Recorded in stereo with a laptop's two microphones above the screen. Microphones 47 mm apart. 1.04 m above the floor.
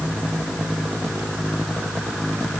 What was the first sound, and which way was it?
Only background noise.